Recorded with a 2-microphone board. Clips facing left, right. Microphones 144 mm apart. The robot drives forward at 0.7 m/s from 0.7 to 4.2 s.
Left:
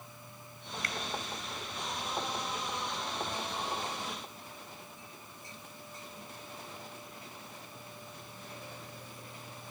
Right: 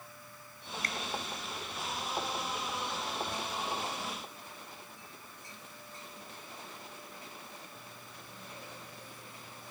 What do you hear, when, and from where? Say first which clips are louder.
0.8 s a finger snap: even; 40° right (ahead or behind), 2.0 m; by 1.0 s 45° right (ahead or behind), 1.9 m